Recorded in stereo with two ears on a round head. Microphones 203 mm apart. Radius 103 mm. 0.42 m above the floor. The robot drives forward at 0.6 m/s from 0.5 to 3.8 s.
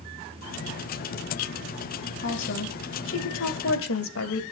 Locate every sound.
2.2 s a woman speaking: 50° left (ahead or behind), 2 m; by 4.4 s 65° left (ahead or behind), 1.9 m